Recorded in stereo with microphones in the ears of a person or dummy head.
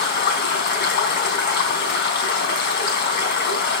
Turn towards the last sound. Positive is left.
turn(degrees=60)  # may be behind; listen again after turning